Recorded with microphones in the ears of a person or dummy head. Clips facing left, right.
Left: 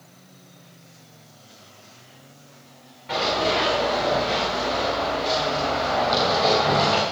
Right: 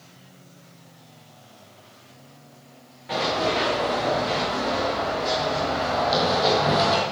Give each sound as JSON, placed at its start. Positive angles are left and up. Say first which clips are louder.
{"t": 3.1, "sound": "running footsteps", "louder": "left 1 dB", "side_deg": -5, "distance_m": 5.0}